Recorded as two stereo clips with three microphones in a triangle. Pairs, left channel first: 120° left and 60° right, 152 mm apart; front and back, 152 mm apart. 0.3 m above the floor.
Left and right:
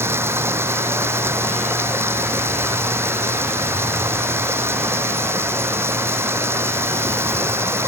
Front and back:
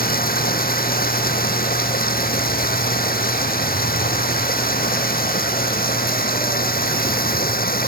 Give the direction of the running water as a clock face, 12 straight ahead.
12 o'clock.